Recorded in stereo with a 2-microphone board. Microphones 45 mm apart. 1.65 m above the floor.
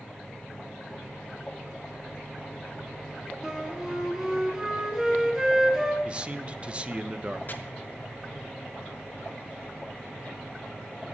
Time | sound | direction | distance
3.4 | a flute | 15° right (ahead or behind) | 3 m
6.0 | a man speaking | 25° right (ahead or behind) | 0.7 m
7.5 | chopping | 40° left (ahead or behind) | 0.9 m